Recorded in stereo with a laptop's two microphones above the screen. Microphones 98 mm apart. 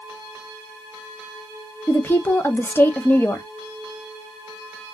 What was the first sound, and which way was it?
A woman speaking, 20° left (ahead or behind).